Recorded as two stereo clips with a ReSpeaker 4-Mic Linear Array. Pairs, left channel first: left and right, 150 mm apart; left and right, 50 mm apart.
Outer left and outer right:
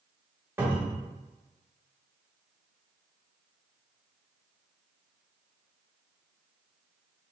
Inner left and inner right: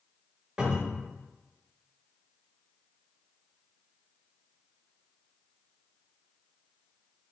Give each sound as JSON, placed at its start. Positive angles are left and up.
{"t": 0.6, "sound": "a cupboard door", "side_deg": -15, "distance_m": 1.3}